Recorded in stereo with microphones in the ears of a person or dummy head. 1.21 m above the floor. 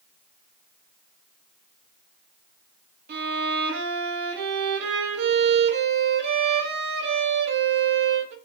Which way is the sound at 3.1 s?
60° right (ahead or behind).